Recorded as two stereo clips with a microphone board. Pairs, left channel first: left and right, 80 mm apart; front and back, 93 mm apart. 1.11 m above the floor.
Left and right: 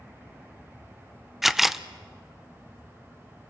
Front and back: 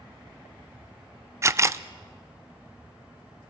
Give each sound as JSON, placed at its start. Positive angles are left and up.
{"t": 1.4, "sound": "a camera shutter", "azimuth_deg": -175, "distance_m": 0.5}